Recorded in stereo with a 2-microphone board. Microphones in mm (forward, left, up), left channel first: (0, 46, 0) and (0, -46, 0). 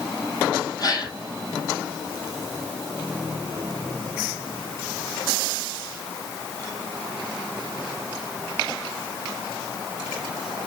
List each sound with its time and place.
0.8 s a gasp: 45° left (ahead or behind), 2 m